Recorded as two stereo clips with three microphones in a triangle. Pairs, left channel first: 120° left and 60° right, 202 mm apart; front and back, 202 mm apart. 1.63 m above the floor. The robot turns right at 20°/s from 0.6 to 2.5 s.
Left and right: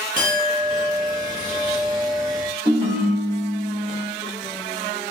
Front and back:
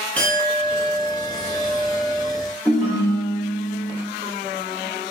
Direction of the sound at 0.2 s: 80° right.